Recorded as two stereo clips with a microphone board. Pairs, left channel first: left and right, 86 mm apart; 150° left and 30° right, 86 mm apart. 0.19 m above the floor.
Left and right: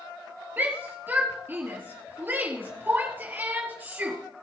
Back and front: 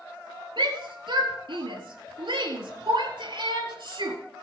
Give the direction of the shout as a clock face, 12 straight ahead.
1 o'clock.